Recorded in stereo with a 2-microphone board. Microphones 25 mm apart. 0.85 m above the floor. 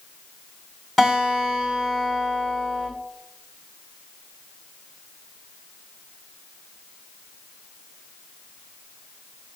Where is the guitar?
Centre (ahead or behind), 3.5 m.